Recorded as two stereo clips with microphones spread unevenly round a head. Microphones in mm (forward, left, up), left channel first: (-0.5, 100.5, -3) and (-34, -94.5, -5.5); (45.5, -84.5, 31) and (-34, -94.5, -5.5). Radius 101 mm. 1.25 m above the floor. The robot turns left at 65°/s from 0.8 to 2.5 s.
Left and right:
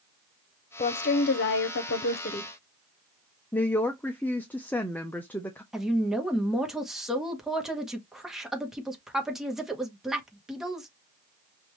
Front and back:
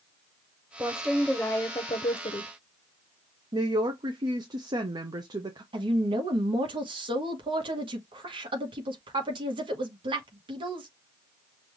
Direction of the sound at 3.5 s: 160° left.